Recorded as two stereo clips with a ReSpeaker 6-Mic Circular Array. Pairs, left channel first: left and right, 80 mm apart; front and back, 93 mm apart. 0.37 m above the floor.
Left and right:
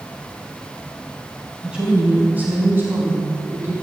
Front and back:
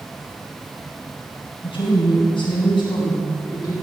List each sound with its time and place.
1.6 s a woman speaking: 15° right, 3 m; by 3.7 s 40° right, 3.5 m